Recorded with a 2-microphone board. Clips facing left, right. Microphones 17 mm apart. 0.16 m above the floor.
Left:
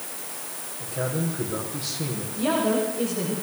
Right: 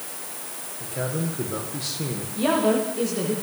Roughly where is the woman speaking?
Right.